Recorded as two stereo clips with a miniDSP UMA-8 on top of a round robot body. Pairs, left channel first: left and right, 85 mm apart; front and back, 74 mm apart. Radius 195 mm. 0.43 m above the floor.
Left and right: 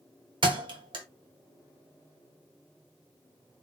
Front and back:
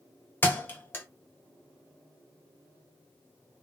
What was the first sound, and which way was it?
A thud, 65° right.